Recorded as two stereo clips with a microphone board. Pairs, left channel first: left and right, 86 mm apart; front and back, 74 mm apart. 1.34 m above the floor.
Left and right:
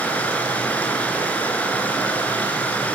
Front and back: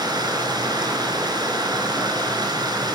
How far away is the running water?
About 4 m.